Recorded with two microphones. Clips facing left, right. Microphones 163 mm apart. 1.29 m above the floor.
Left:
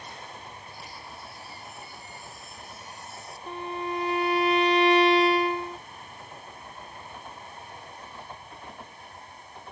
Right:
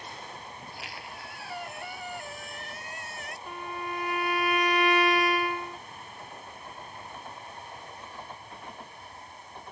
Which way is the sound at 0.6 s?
80° right.